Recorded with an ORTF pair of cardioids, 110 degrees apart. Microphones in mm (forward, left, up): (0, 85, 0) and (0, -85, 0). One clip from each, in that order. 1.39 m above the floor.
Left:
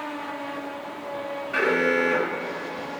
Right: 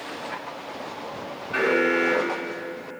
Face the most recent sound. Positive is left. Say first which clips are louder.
# right 1 dB
turn(degrees=10)